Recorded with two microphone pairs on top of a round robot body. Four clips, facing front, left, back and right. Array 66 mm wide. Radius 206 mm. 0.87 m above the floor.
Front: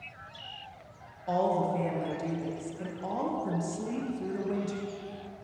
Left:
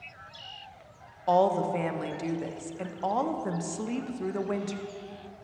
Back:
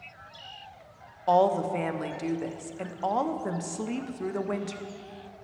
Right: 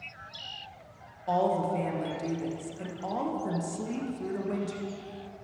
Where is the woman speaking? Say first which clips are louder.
Left 3 dB, back 5 dB; 145° left, 0.7 m.